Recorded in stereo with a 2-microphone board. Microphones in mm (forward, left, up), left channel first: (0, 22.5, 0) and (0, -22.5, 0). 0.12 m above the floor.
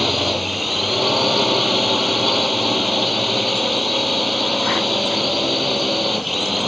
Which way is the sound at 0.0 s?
Centre (ahead or behind).